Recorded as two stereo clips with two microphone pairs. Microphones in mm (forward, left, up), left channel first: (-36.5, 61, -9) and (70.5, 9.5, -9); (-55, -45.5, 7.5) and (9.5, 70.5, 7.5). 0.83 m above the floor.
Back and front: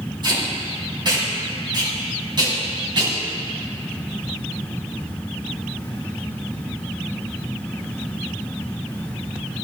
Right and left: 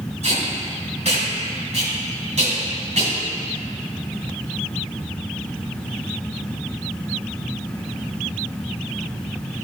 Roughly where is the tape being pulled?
Ahead left.